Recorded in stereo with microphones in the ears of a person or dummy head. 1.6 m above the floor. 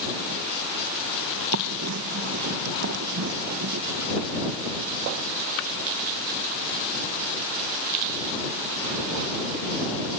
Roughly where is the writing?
Right.